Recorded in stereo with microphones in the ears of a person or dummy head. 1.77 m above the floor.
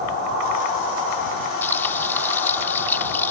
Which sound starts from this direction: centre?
Frying, at 1.6 s.